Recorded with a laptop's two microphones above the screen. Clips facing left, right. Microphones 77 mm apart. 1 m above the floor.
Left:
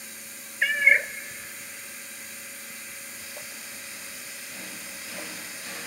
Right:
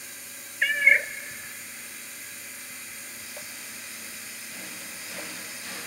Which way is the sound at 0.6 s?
5° left (ahead or behind).